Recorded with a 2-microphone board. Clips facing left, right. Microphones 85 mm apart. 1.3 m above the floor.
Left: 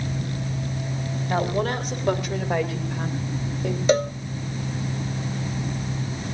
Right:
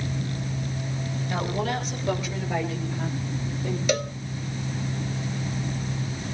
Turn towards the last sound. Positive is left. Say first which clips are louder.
# left 7 dB
turn(degrees=35)  # may be behind; listen again after turning